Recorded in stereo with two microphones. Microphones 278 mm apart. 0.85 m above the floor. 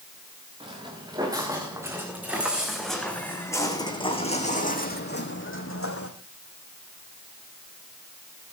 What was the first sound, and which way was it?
Footsteps, 15° right (ahead or behind).